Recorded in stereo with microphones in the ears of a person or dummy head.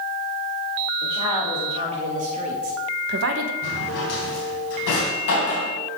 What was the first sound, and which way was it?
A woman speaking, 30° right (ahead or behind).